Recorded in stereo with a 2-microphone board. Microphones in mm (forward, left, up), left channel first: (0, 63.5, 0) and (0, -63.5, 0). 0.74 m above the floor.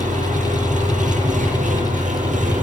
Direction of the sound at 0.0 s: 85° right.